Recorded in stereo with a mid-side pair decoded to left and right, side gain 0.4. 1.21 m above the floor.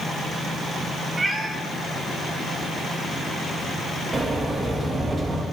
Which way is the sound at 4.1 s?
35° right.